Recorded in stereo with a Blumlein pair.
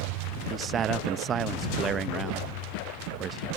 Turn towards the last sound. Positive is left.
turn(degrees=-25)